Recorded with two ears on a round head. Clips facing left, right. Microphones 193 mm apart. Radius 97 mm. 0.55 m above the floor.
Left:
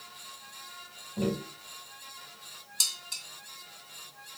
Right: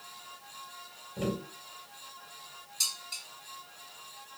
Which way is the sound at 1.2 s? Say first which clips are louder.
Left 3 dB; 15° right (ahead or behind).